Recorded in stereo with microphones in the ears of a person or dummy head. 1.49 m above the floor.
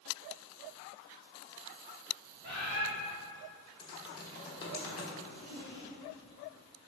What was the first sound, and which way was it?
A bird, 65° right (ahead or behind).